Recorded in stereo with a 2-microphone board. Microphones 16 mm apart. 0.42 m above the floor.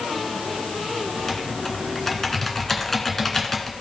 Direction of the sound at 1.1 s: 20° left (ahead or behind).